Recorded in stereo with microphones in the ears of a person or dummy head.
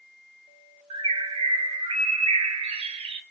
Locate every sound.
0.9 s a bird: 35° right (ahead or behind), 1.0 m